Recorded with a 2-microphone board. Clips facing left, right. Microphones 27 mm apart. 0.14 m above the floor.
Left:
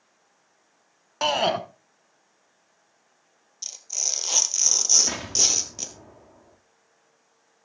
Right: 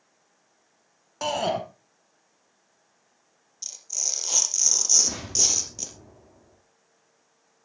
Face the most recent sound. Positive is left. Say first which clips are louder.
# left 2 dB
turn(degrees=60)  # may be behind; listen again after turning